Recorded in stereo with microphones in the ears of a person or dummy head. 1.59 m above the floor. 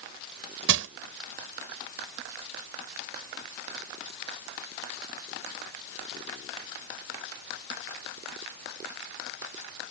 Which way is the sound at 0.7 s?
80° right.